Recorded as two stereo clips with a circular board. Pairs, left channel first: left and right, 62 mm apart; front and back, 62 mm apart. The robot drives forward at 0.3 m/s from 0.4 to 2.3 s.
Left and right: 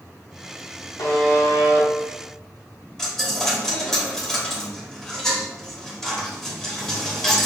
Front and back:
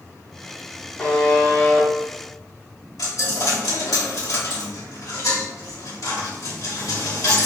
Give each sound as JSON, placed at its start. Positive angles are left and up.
{"t": 1.0, "sound": "a buzzer", "azimuth_deg": 65, "distance_m": 1.4}
{"t": 3.0, "sound": "a dropped coin", "azimuth_deg": 5, "distance_m": 1.1}